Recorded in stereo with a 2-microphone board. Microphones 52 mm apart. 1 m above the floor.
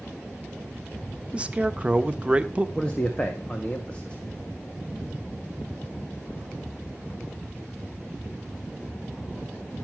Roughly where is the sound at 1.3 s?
Right.